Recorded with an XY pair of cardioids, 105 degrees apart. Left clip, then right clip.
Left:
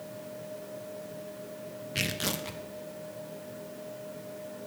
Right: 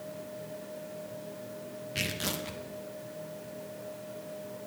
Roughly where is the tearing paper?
Ahead.